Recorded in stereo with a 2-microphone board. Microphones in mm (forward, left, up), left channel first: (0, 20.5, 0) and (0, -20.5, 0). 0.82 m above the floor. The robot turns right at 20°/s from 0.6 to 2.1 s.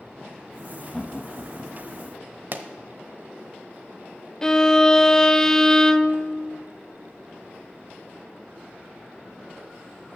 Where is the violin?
10° left (ahead or behind), 0.5 m.